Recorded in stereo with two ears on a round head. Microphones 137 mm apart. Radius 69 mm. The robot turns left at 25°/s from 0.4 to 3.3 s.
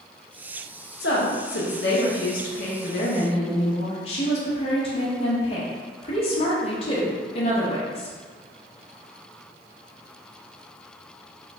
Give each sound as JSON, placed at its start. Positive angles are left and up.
{"t": 1.0, "sound": "a woman speaking", "azimuth_deg": 95, "distance_m": 0.6}